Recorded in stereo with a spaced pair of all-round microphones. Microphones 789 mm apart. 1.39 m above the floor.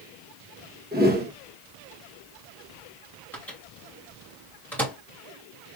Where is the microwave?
Centre (ahead or behind), 2 m.